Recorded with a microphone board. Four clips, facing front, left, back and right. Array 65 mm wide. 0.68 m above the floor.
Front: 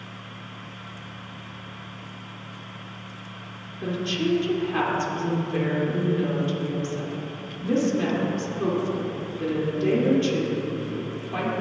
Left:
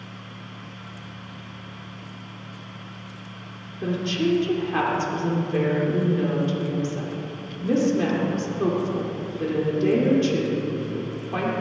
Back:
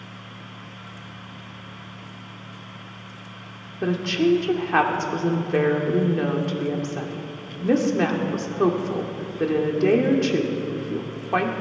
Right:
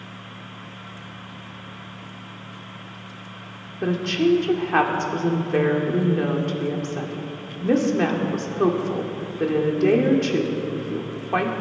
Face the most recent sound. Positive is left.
turn(degrees=-145)